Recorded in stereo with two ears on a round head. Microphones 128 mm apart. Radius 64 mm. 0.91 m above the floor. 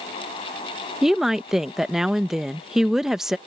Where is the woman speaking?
5° right (ahead or behind).